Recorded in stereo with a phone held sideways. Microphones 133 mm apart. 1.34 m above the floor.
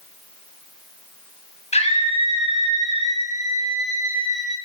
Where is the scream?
55° left (ahead or behind), 8.5 m; by 4.5 s 60° left (ahead or behind), 11.5 m.